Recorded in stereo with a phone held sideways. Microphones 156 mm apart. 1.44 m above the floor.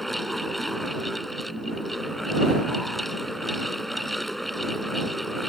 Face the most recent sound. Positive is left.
turn(degrees=0)  # may be behind; listen again after turning